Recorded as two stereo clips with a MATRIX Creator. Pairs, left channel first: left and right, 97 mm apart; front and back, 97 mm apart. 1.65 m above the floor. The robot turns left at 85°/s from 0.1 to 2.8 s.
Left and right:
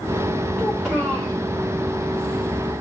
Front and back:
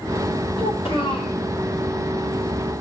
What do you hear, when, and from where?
0.6 s a child speaking: 15° left, 4.5 m; by 1.4 s 50° right, 4.5 m